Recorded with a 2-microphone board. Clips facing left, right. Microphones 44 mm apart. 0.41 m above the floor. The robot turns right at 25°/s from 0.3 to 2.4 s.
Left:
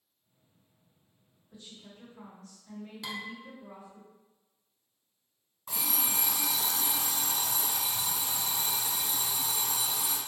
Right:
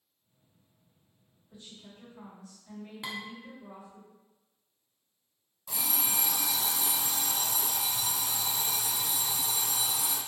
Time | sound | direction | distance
1.5 | a woman speaking | 30° right (ahead or behind) | 1.6 m
3.0 | dishes clattering | 25° right (ahead or behind) | 0.5 m
5.7 | an alarm clock | 45° left (ahead or behind) | 1.4 m